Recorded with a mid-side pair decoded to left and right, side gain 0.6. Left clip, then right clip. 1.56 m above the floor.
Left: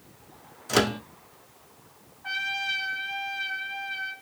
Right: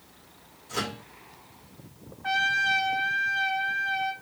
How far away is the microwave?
About 0.6 m.